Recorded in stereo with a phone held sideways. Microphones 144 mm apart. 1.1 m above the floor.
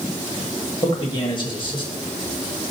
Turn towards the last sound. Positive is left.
turn(degrees=35)  # may be behind; listen again after turning